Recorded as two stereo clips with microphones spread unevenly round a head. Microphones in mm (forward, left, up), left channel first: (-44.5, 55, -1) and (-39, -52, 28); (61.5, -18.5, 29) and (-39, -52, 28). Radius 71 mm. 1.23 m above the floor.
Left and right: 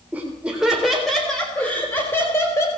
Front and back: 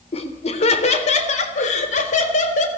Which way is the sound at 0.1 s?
10° right.